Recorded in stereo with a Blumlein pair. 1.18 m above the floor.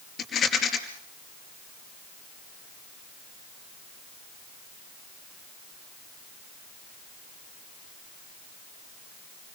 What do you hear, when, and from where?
0.2 s a rattle: 25° left, 5 m